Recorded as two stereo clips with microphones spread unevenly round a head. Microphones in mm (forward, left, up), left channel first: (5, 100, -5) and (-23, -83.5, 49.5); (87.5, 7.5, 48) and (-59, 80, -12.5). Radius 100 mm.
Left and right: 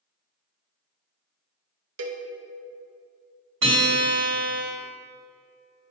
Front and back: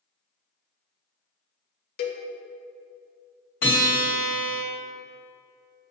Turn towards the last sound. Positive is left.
turn(degrees=-70)